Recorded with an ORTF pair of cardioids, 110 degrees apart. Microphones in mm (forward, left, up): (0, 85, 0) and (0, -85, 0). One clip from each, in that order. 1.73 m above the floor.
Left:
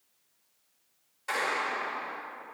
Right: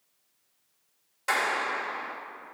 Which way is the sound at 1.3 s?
55° right.